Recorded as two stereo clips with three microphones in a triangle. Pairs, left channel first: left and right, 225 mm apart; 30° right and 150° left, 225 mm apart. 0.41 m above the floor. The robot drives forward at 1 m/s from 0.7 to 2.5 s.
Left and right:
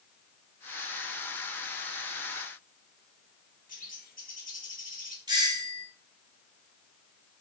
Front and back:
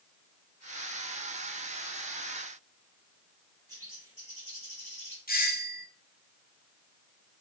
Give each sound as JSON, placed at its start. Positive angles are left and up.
{"t": 3.7, "sound": "a bird", "azimuth_deg": 140, "distance_m": 3.0}
{"t": 5.3, "sound": "a doorbell", "azimuth_deg": -25, "distance_m": 1.6}